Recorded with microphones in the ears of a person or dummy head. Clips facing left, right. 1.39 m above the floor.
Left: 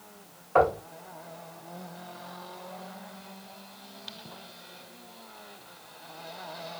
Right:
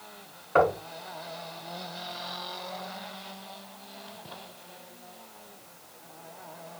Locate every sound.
0.6 s knocking: 25° right (ahead or behind), 2.5 m